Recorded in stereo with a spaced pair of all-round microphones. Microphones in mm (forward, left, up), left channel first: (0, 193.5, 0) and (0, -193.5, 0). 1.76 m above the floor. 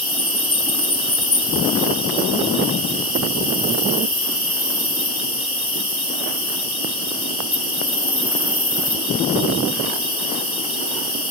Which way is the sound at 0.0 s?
65° left (ahead or behind).